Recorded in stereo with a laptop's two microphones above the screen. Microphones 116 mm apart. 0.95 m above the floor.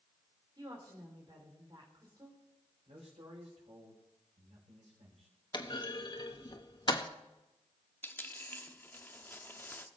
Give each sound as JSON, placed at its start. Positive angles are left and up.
{"t": 0.6, "sound": "a woman speaking", "side_deg": -40, "distance_m": 3.5}
{"t": 2.9, "sound": "a man speaking", "side_deg": -65, "distance_m": 4.0}
{"t": 5.5, "sound": "a clunk", "side_deg": 45, "distance_m": 1.1}
{"t": 8.0, "sound": "a dropped coin", "side_deg": 20, "distance_m": 0.7}